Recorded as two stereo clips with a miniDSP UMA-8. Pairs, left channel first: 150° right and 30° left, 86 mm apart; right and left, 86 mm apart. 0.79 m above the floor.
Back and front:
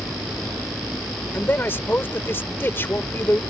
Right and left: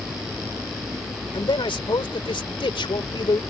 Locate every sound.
1.3 s a man speaking: 85° right